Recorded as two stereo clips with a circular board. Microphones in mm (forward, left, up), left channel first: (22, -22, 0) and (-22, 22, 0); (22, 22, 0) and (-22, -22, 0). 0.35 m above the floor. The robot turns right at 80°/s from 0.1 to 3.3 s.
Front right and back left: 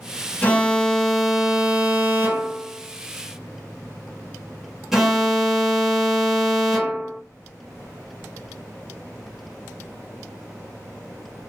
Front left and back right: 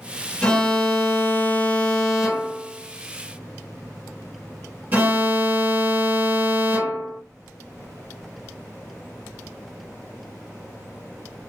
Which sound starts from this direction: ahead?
An alarm, at 0.4 s.